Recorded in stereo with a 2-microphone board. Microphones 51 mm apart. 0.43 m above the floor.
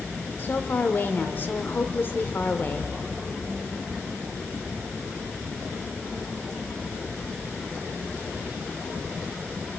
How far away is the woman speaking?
About 1.2 m.